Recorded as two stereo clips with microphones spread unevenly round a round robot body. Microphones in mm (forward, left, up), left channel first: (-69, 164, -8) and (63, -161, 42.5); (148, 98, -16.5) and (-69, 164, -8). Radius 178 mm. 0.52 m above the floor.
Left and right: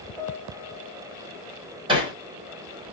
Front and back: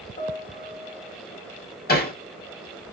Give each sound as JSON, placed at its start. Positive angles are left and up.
{"t": 0.2, "sound": "a piano", "azimuth_deg": 40, "distance_m": 1.0}
{"t": 1.9, "sound": "hammering", "azimuth_deg": 10, "distance_m": 1.5}